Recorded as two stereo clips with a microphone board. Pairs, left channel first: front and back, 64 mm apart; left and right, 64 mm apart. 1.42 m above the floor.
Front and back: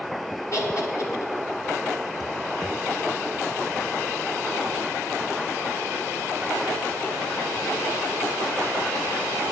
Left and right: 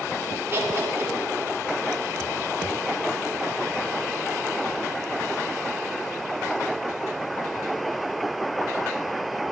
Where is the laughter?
35° right, 1.6 m.